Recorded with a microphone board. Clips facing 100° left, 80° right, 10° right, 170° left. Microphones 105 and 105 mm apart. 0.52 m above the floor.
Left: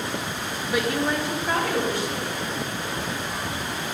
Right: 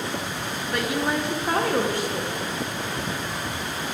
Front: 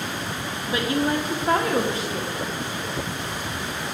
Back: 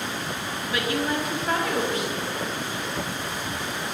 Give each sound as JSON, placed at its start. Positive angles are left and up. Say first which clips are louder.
{"t": 0.7, "sound": "a woman speaking", "louder": "left 1 dB, front 3 dB", "azimuth_deg": 25, "distance_m": 0.8}